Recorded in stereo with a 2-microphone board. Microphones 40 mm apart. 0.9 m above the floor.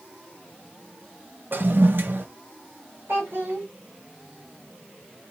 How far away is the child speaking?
About 1.5 m.